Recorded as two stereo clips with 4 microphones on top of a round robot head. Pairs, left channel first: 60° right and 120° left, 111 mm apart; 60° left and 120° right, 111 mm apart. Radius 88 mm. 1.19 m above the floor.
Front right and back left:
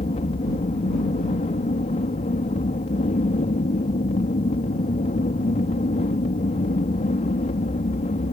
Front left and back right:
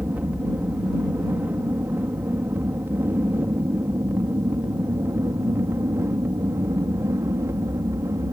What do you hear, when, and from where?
0.0 s an aircraft: 45° right; by 8.3 s 55° right